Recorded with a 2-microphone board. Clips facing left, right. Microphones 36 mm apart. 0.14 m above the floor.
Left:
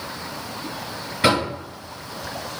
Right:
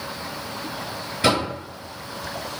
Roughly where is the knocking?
Left.